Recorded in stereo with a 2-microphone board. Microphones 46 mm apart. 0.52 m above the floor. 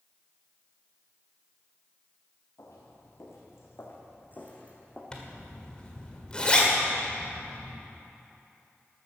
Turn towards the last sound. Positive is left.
turn(degrees=20)  # may be behind; listen again after turning